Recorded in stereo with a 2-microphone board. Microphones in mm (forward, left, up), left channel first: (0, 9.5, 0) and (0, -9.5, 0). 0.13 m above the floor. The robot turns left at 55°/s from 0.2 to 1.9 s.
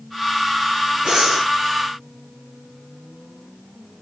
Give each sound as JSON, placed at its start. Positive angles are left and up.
{"t": 1.1, "sound": "breathing", "side_deg": -50, "distance_m": 6.0}